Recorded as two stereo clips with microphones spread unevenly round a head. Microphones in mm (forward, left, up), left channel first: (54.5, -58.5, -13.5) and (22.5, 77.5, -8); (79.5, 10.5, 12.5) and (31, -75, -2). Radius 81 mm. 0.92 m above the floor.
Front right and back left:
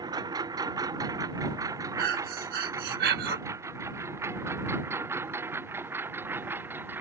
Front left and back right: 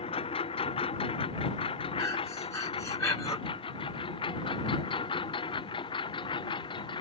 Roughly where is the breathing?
Behind left.